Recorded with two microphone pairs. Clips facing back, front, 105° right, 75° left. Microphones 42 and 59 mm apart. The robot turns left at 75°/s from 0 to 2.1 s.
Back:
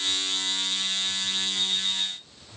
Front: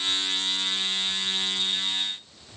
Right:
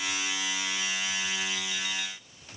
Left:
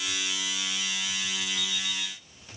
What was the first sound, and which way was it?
An alarm clock, 175° right.